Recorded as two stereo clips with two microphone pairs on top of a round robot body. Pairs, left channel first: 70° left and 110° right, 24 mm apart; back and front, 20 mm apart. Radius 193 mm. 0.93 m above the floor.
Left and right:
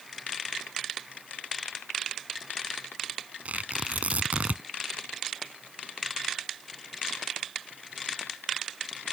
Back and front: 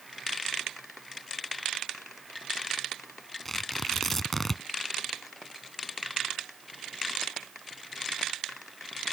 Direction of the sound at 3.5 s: 95° right.